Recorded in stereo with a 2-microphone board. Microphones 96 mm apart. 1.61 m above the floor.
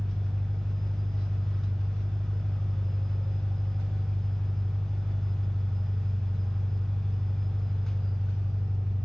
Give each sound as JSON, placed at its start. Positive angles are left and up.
{"t": 0.0, "sound": "an engine running", "side_deg": 5, "distance_m": 0.9}